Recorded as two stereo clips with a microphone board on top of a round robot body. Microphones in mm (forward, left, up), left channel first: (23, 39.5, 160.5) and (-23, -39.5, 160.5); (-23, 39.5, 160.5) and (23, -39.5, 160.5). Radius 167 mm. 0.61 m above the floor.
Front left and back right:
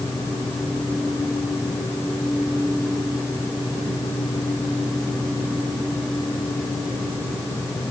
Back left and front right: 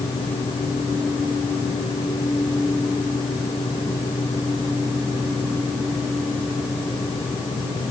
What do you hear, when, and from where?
Only background noise.